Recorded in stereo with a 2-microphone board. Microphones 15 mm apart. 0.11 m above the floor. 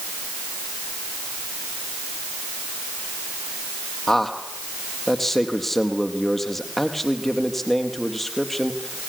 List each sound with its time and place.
4.1 s a man speaking: 15° left (ahead or behind), 3.5 m